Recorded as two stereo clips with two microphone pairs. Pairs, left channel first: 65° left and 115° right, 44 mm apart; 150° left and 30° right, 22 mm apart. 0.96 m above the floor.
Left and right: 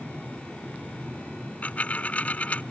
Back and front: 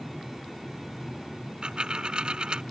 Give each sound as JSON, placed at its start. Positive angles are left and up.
{"t": 1.6, "sound": "a dropped coin", "azimuth_deg": 15}